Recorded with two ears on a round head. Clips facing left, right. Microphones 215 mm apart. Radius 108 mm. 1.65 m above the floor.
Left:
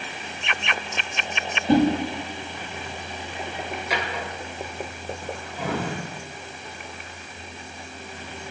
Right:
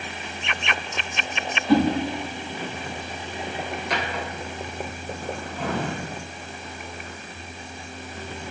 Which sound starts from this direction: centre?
A drawer, at 3.9 s.